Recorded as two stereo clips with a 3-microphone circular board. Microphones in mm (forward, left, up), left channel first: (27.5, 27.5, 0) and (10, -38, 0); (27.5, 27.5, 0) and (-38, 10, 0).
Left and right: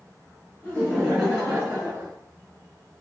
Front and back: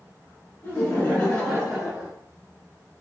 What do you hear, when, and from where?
0.6 s laughter: 15° left, 1.5 m; by 2.1 s 110° right, 1.4 m